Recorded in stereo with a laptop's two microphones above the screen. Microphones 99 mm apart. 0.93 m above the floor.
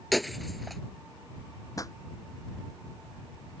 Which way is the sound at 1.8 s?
35° left (ahead or behind).